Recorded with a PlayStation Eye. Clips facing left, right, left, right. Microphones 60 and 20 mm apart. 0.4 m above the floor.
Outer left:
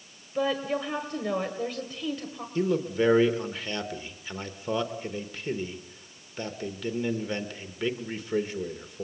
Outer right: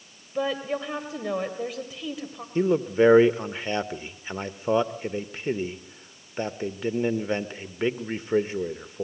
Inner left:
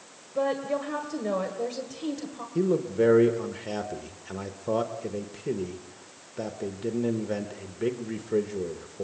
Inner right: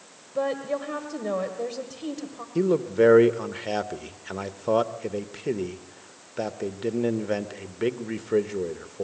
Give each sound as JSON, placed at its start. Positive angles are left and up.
{"t": 0.3, "sound": "a woman speaking", "side_deg": -5, "distance_m": 1.8}
{"t": 2.5, "sound": "a man speaking", "side_deg": -25, "distance_m": 0.9}